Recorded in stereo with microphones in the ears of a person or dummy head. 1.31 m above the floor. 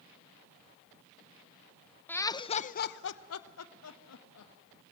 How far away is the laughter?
About 1.0 m.